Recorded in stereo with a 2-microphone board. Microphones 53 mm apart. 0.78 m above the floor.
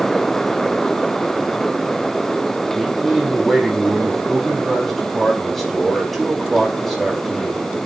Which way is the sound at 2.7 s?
5° left (ahead or behind).